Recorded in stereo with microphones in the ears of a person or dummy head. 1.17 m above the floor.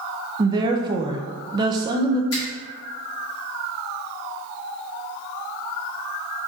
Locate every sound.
0.4 s a woman speaking: 20° right (ahead or behind), 0.5 m
2.3 s a finger snap: 75° left (ahead or behind), 1.7 m